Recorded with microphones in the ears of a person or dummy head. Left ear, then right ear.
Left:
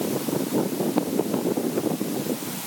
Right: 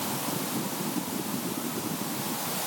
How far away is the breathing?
I don't hear breathing.